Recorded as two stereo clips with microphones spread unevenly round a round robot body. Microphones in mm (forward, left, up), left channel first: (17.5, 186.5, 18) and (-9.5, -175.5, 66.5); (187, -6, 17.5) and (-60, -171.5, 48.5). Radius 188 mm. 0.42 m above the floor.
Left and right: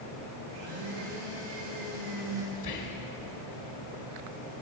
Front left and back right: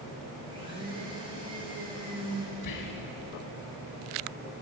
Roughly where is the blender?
Right.